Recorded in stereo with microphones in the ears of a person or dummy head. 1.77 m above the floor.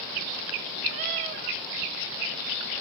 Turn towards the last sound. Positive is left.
turn(degrees=-25)  # may be behind; listen again after turning